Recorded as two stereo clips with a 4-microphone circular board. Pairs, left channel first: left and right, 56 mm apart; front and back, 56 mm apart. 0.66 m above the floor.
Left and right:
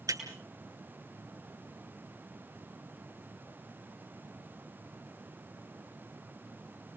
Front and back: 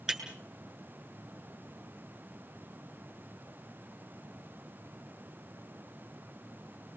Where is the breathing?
No breathing in this recording.